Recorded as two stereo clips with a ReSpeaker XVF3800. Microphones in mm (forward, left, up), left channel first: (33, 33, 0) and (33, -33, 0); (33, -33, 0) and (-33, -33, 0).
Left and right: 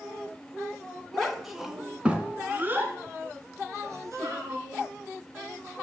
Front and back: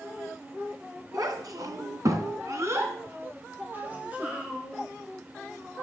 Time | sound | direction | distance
1.1 | a child speaking | 175° left | 1.6 m